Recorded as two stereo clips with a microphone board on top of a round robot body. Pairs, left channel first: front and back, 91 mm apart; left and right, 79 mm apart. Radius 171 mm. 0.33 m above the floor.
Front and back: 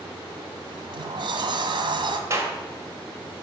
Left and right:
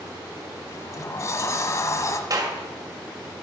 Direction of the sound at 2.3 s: 125° right.